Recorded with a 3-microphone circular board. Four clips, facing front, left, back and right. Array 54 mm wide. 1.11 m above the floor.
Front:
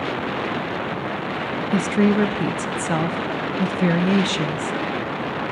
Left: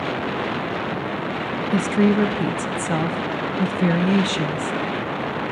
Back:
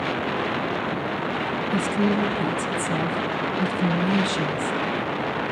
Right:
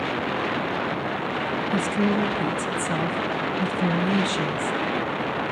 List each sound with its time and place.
1.7 s a woman speaking: 30° left, 0.6 m